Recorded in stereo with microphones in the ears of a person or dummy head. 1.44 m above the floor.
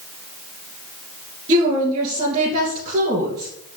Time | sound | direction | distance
1.5 | a woman speaking | 40° right (ahead or behind) | 2.5 m